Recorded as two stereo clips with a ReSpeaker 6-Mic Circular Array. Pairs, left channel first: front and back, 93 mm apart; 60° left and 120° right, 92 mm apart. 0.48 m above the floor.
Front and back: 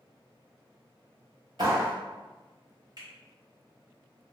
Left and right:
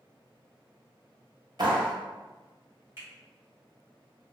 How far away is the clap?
About 1.4 m.